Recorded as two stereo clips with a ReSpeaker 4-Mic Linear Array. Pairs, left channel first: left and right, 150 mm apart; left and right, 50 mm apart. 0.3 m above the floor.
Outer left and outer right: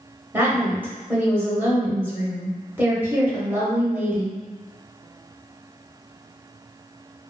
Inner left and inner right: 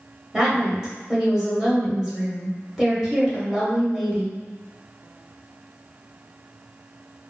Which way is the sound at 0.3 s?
15° right (ahead or behind).